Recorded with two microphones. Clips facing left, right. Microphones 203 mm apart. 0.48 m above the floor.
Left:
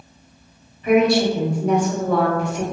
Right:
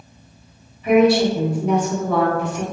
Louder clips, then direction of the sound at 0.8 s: Right 2 dB; 5° right (ahead or behind).